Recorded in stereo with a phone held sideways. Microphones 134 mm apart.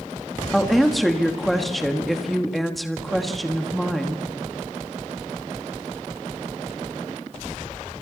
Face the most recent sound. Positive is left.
turn(degrees=0)  # may be behind; listen again after turning